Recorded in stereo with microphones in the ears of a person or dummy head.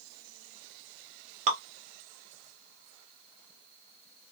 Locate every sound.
1.5 s dripping: 35° right (ahead or behind), 1.0 m